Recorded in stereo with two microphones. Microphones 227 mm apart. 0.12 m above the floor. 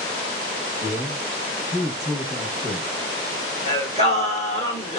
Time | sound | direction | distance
0.8 | a man speaking | 35° left (ahead or behind) | 1.4 m
3.7 | singing | 30° left (ahead or behind) | 1.2 m